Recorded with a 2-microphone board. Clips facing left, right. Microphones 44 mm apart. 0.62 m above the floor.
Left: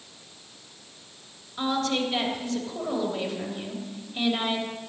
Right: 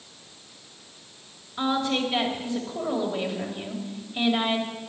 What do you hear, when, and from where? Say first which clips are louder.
1.6 s a woman speaking: right 1 dB; 15° right (ahead or behind), 3 m